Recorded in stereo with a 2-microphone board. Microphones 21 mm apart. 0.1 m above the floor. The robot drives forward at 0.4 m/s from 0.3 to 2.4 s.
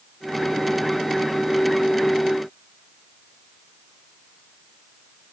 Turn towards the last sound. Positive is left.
No sound to turn to.